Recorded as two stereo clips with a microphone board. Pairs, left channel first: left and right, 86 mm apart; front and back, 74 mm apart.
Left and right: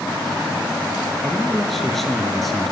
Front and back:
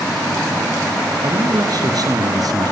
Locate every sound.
1.2 s a man speaking: 175° left, 2 m